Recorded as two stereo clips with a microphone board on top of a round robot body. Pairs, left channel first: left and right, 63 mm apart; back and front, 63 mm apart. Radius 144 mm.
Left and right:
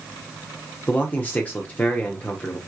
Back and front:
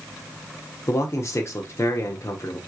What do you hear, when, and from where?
0.9 s a man speaking: 150° left, 1.6 m